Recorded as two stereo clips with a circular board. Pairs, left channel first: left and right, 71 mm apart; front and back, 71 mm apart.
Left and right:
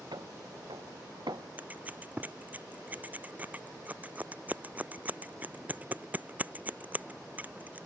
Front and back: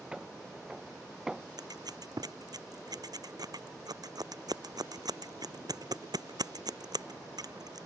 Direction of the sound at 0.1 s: 105° right.